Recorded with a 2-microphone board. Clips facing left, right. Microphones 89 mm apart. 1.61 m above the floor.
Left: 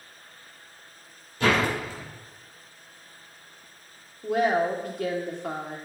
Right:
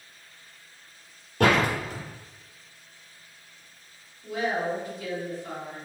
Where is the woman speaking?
60° left (ahead or behind), 1.3 m.